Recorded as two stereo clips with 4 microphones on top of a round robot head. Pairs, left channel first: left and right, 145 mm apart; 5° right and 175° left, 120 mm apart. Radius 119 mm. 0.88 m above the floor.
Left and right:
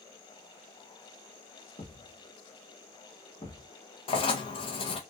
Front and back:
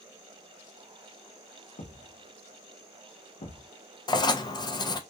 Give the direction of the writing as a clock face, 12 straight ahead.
10 o'clock.